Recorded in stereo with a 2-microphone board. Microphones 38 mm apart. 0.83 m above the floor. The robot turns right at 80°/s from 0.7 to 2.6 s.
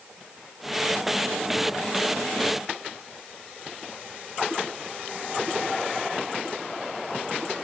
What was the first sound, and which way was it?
Only background noise.